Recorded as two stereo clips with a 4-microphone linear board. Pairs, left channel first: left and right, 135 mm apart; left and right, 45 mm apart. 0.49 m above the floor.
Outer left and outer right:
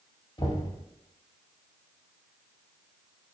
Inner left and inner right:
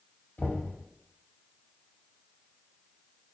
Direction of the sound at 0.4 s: 40° left (ahead or behind).